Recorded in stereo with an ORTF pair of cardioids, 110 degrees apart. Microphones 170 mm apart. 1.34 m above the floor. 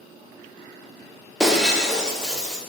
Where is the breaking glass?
5° right, 1.4 m.